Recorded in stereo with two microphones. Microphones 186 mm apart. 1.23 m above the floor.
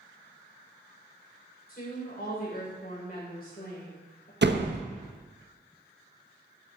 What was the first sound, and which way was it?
A woman speaking, 55° left (ahead or behind).